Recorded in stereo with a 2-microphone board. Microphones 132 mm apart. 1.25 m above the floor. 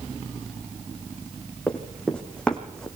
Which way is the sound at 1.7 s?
5° left (ahead or behind).